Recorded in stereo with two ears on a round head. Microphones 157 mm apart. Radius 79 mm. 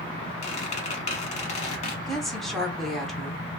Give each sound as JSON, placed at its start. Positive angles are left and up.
{"t": 0.4, "sound": "a squeak", "side_deg": 40, "distance_m": 0.8}
{"t": 2.1, "sound": "a woman speaking", "side_deg": 0, "distance_m": 0.8}